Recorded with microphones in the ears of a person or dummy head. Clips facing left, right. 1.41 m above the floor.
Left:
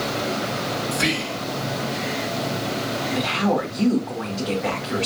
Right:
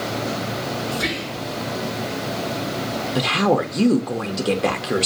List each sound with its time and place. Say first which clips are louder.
0.9 s whispering: left 1 dB; 40° left (ahead or behind), 1.3 m
3.1 s a woman speaking: right 4 dB; 50° right (ahead or behind), 0.7 m